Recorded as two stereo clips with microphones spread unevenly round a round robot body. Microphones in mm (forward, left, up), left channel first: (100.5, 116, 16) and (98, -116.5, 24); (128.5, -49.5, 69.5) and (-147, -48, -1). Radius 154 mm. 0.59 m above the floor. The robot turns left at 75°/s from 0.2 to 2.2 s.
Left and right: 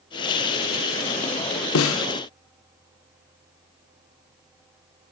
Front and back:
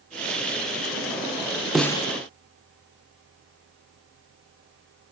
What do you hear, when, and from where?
1.8 s a snare drum: 100° left, 1.0 m; by 2.1 s 75° left, 1.0 m